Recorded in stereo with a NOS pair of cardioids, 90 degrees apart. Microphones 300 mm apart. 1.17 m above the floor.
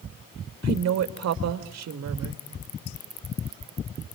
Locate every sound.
0.6 s a woman speaking: 60° right, 2.5 m